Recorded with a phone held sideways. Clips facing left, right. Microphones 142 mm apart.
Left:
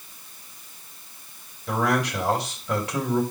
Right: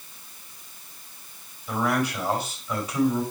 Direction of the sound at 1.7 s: 85° left.